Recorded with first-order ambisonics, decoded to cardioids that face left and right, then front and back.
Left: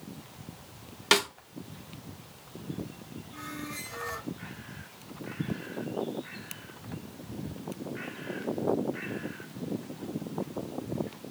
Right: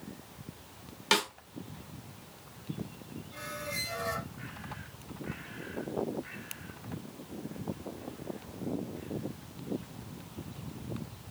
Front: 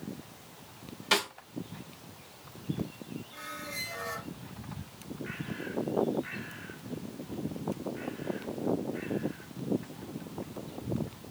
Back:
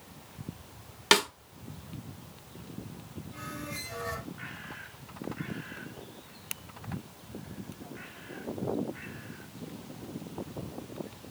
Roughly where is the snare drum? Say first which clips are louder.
Left 3 dB, back 4 dB; behind.